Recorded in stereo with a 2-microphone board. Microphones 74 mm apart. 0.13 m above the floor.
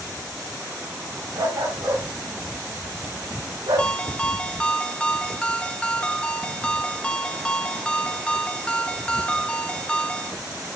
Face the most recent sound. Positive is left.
turn(degrees=15)  # may be behind; listen again after turning